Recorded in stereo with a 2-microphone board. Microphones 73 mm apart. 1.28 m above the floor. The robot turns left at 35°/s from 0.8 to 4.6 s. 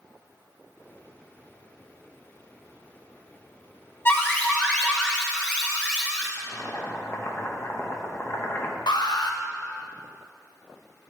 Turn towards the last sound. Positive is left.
turn(degrees=75)  # may be behind; listen again after turning